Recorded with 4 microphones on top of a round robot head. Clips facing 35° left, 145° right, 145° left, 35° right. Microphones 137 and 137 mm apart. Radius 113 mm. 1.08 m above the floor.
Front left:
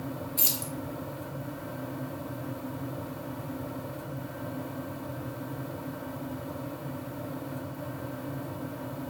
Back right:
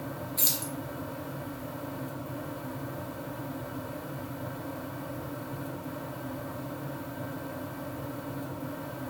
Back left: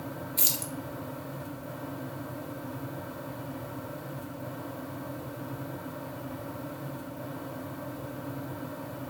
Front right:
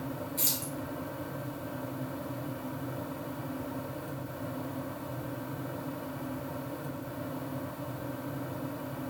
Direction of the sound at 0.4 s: 115° left.